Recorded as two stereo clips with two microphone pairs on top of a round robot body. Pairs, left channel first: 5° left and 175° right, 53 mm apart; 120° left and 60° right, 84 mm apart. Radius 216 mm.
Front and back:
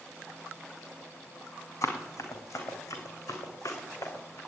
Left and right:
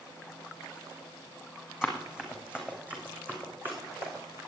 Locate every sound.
1.8 s running footsteps: 25° left, 3 m; by 4.4 s straight ahead, 4 m